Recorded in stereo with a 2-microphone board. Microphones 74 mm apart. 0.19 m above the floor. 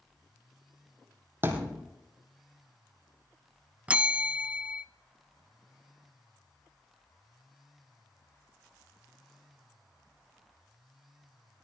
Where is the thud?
30° right (ahead or behind), 2.5 m.